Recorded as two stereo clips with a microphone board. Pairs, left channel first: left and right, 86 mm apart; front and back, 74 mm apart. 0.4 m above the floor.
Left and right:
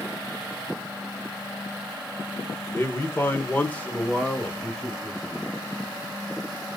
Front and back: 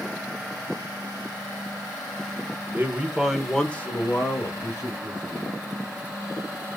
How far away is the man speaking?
About 0.9 m.